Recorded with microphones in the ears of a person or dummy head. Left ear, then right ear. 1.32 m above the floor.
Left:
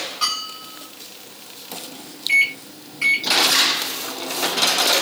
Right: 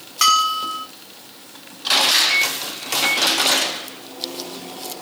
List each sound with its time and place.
0.2 s a bell: 55° right (ahead or behind), 0.9 m
2.3 s a microwave: 45° left (ahead or behind), 0.6 m